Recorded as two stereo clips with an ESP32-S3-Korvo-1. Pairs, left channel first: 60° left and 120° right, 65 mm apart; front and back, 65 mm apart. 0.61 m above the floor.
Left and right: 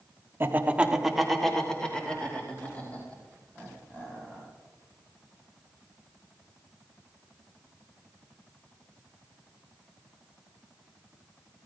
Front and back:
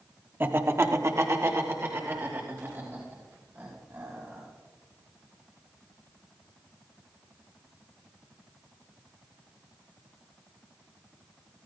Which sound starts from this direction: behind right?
Laughter, at 0.4 s.